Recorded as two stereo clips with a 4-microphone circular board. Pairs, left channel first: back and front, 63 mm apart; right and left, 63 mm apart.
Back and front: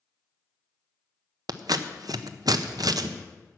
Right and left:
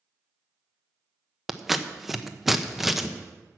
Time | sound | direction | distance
1.5 | scissors | 5° left | 0.6 m